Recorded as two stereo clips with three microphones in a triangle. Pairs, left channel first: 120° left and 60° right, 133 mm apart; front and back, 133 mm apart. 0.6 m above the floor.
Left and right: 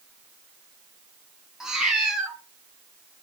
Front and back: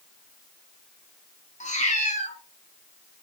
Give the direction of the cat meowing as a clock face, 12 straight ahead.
11 o'clock.